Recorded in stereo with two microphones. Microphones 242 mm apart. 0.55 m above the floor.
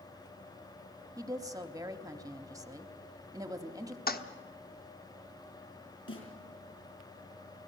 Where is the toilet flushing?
40° left (ahead or behind), 1.1 m.